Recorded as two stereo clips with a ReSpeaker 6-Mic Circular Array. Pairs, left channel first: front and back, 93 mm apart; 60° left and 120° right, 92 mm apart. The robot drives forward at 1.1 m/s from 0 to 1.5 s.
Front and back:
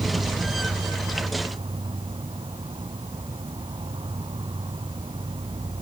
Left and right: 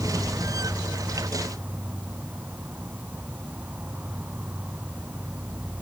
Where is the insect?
145° left; by 5.8 s 170° left.